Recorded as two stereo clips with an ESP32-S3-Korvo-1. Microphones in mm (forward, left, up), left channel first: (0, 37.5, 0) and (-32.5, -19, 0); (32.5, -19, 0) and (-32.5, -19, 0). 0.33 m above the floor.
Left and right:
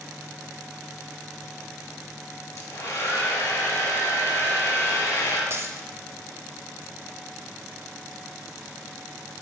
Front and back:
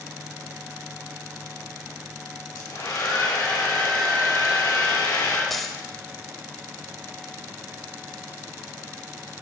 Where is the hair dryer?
10° left, 2 m.